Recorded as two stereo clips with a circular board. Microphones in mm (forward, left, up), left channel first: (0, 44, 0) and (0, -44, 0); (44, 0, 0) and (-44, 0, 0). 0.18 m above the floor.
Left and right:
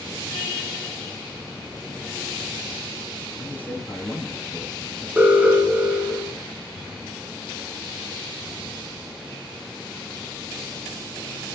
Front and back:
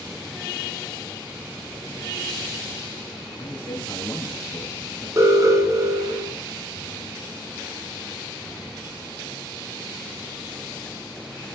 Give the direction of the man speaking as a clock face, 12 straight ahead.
11 o'clock.